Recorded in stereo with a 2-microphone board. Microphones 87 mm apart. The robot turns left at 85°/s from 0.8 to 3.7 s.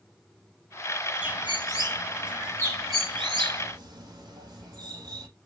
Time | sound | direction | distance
1.2 | a bird | 70° left (ahead or behind) | 4 m